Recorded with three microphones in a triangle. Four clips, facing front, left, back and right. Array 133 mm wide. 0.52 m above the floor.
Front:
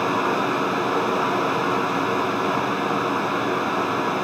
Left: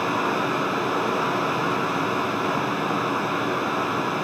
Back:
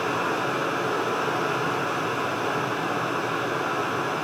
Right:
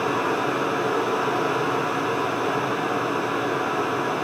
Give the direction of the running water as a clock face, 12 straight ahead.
11 o'clock.